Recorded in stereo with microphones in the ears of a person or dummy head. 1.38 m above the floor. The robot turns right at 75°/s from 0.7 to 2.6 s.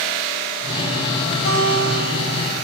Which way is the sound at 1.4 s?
120° left.